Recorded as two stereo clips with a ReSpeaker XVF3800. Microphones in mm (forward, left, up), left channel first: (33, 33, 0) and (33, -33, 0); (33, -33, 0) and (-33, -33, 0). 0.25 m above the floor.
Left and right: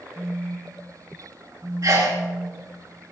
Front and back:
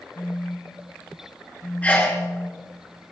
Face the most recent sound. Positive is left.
turn(degrees=-60)